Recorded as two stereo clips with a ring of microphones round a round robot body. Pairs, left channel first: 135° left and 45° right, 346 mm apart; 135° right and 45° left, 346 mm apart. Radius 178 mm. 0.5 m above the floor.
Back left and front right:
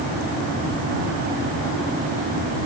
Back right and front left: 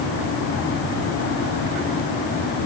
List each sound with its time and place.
Only background noise.